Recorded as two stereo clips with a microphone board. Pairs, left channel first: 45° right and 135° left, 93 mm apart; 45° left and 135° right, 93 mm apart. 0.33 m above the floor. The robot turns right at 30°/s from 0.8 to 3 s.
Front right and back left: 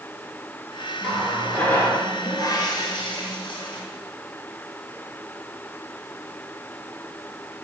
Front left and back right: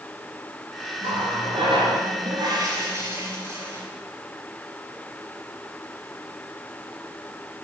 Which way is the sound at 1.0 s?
140° right.